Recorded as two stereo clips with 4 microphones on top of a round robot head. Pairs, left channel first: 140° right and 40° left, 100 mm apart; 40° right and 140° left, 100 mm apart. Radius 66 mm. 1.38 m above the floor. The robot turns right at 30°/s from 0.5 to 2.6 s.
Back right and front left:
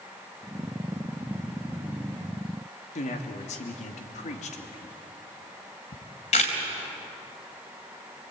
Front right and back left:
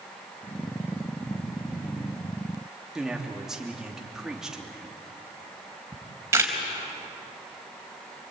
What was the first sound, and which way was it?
A man speaking, 135° right.